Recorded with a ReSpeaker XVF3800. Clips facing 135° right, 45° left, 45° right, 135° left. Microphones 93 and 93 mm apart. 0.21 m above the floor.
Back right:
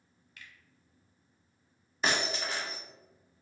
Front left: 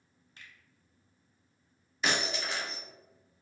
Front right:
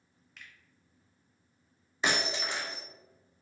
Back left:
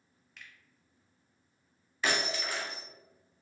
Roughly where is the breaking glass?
Right.